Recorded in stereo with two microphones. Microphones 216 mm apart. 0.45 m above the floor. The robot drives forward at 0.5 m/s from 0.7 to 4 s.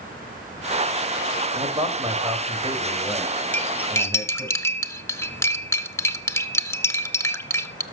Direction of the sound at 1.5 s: 25° right (ahead or behind).